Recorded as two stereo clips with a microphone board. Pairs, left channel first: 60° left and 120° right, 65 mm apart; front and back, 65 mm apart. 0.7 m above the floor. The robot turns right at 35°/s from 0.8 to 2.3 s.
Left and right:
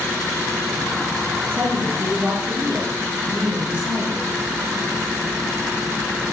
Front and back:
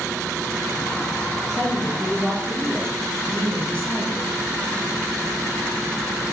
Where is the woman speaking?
85° right, 1.7 m; by 4.3 s 60° right, 1.7 m.